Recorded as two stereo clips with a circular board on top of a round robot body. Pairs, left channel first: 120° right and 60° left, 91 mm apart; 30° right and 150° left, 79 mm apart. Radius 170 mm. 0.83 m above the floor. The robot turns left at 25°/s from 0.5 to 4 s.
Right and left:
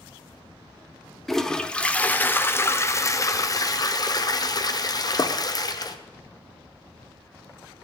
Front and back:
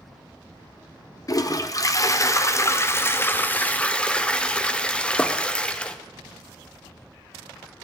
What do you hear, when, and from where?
1.3 s a toilet flushing: 35° right, 1.0 m; by 6.0 s 100° right, 1.0 m